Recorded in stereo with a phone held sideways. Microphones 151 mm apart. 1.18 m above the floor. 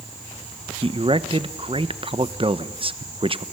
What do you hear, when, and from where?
0.8 s a man speaking: 40° right (ahead or behind), 1.2 m